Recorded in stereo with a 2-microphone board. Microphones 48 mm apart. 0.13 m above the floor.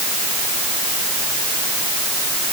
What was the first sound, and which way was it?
Only background noise.